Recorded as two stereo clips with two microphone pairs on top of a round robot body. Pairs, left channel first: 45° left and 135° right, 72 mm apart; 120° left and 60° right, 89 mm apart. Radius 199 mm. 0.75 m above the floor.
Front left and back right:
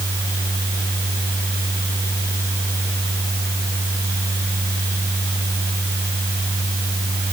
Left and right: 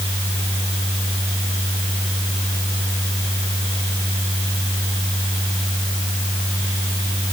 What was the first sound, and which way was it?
Only background noise.